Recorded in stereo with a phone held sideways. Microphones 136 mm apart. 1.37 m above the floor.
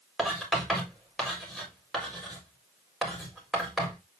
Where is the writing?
Centre (ahead or behind), 4 m.